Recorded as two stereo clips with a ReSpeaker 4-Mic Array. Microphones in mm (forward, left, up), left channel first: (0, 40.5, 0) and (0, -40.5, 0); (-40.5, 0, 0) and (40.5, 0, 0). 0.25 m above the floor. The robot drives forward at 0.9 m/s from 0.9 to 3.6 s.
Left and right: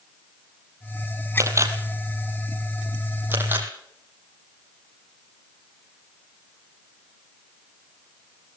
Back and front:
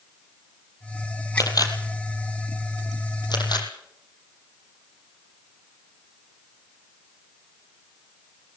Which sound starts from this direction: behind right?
A camera shutter, at 1.4 s.